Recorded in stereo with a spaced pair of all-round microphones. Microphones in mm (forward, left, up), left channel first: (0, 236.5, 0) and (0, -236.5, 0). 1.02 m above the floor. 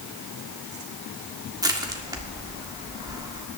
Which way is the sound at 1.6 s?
10° right (ahead or behind).